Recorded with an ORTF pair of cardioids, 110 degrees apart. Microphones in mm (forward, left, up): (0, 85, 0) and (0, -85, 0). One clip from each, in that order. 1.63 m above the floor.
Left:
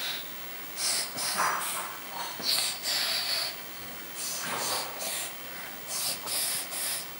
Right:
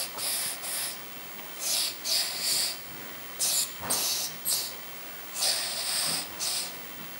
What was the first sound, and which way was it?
Only background noise.